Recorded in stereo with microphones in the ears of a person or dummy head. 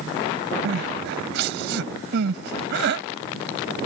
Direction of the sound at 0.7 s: 65° right (ahead or behind).